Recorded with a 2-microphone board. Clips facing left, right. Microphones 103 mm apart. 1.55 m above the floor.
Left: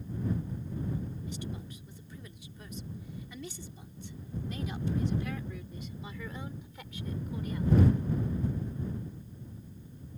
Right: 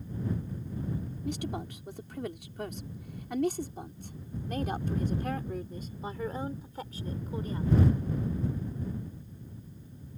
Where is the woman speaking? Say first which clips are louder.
Right 6 dB; 85° right; by 8.0 s 35° right (ahead or behind).